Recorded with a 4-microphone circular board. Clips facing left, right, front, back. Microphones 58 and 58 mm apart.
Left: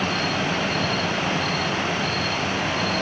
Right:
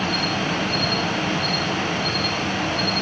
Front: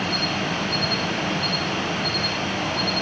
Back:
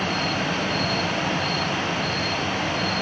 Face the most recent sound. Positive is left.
turn(degrees=140)